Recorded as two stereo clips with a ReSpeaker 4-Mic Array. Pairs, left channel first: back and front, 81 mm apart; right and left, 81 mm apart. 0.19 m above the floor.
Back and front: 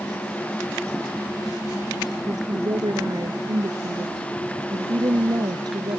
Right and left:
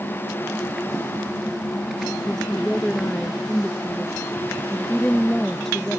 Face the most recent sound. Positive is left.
turn(degrees=-5)